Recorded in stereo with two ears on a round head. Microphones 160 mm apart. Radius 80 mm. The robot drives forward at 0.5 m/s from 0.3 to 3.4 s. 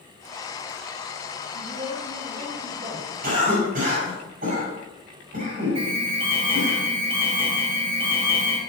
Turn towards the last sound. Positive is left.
turn(degrees=-35)  # may be behind; listen again after turning